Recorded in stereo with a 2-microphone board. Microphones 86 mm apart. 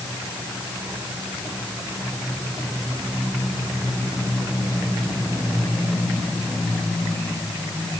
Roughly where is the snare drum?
I don't hear a snare drum.